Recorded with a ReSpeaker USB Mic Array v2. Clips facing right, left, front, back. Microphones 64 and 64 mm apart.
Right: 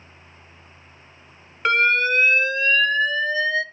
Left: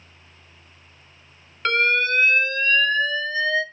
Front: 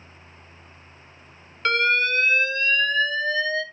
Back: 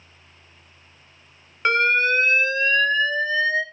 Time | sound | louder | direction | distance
1.6 | an alarm | right 2 dB, back 2 dB | 155° right | 0.8 m